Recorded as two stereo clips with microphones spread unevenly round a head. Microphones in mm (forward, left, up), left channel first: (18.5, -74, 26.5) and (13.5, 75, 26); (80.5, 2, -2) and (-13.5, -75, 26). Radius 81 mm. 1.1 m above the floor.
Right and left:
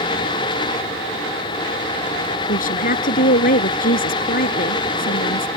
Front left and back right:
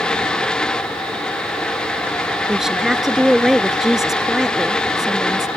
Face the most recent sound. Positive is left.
turn(degrees=-55)